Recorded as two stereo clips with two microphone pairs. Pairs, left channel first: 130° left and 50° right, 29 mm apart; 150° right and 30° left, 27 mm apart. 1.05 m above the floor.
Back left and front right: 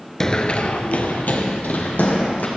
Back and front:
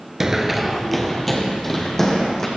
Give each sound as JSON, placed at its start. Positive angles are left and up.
{"t": 0.2, "sound": "running footsteps", "azimuth_deg": 85, "distance_m": 1.0}